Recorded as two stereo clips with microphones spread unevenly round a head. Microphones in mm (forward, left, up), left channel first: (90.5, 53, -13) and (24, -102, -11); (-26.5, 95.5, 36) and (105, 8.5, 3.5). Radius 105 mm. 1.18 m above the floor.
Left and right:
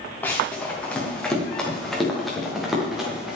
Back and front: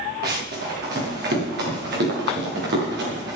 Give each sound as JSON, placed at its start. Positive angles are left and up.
{"t": 0.2, "sound": "running footsteps", "azimuth_deg": -15, "distance_m": 6.5}